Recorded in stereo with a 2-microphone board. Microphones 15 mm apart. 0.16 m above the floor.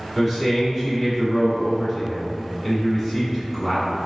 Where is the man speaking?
10° right (ahead or behind), 1.5 m.